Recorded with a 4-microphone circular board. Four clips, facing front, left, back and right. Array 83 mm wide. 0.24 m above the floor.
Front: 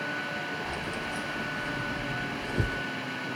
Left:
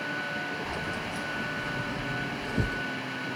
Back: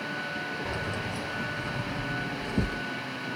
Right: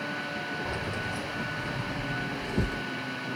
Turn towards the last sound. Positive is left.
turn(degrees=-150)